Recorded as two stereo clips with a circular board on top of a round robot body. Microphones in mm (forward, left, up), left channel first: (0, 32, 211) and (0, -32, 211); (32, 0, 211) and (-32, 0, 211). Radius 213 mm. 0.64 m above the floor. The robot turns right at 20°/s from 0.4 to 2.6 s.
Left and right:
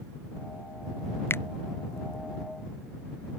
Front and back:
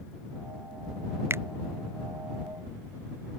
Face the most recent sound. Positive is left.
turn(degrees=160)